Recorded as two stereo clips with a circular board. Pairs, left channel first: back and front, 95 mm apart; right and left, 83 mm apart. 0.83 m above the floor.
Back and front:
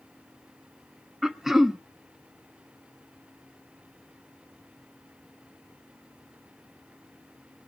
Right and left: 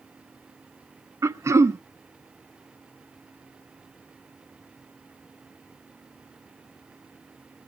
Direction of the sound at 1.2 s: 80° left.